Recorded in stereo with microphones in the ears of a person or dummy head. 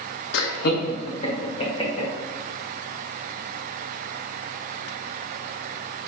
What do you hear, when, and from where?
0.3 s laughter: 60° left (ahead or behind), 0.6 m; by 2.1 s 30° left (ahead or behind), 2.5 m